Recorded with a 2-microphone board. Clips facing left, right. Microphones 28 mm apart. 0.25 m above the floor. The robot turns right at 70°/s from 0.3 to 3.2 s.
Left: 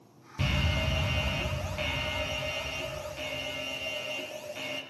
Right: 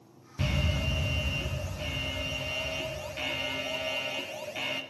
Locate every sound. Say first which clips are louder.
0.4 s an alarm: left 1 dB; 15° left, 3 m; by 4.8 s 150° right, 3 m